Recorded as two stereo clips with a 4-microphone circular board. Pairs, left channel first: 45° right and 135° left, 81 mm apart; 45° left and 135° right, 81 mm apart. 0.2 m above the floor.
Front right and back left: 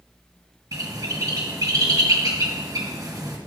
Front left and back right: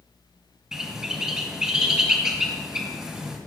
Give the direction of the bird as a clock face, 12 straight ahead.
7 o'clock.